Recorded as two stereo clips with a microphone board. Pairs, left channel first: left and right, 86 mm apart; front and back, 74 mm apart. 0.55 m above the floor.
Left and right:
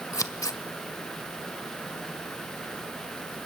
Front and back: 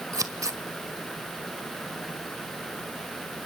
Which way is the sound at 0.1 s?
140° left.